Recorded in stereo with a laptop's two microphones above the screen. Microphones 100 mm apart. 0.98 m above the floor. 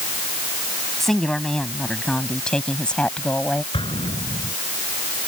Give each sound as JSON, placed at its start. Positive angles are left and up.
{"t": 1.0, "sound": "a woman speaking", "side_deg": 5}
{"t": 3.7, "sound": "an explosion", "side_deg": 60}